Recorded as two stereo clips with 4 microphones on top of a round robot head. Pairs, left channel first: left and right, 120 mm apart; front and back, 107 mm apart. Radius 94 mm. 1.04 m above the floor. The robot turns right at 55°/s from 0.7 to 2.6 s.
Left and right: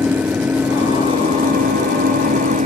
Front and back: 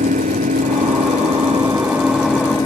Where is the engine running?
170° right; by 2.7 s 65° right.